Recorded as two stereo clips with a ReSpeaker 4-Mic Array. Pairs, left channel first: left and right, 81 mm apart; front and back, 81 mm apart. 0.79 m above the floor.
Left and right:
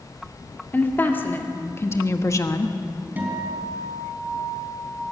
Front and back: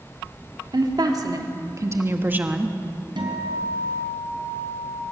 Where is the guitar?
160° right, 3.5 m.